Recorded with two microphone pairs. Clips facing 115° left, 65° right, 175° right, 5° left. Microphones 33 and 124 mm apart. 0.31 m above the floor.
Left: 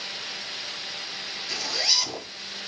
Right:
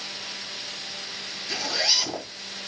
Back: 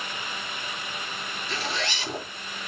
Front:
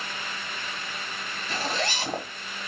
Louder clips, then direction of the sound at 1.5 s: Right 1 dB, front 3 dB; straight ahead.